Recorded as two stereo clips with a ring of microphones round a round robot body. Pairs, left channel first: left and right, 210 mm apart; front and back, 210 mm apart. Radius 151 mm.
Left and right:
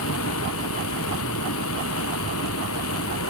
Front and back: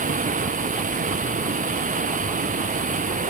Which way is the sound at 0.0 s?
130° left.